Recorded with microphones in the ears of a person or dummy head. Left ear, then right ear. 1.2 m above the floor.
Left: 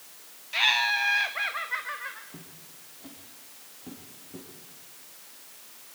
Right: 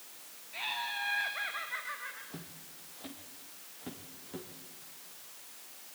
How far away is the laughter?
About 0.6 m.